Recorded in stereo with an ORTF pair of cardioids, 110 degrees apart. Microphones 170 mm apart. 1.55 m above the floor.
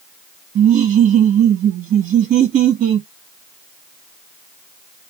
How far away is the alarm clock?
I don't hear an alarm clock.